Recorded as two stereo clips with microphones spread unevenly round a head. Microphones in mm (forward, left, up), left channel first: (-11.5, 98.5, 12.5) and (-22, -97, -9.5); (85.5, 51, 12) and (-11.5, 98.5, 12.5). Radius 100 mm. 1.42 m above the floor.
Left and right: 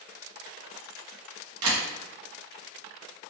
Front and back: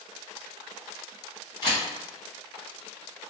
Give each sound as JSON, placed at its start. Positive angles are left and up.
{"t": 1.6, "sound": "a camera shutter", "azimuth_deg": -95, "distance_m": 0.9}